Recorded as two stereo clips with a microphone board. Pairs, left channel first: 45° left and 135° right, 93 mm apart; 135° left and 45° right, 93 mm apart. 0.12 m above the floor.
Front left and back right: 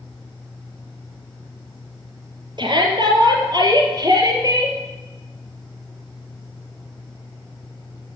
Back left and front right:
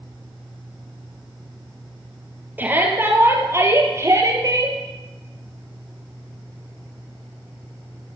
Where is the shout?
110° right, 3 m; by 4.8 s 90° right, 3 m.